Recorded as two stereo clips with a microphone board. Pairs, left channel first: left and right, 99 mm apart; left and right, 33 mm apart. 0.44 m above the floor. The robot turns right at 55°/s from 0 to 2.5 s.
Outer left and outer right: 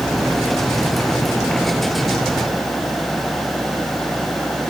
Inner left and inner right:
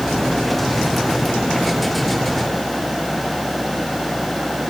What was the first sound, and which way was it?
Only background noise.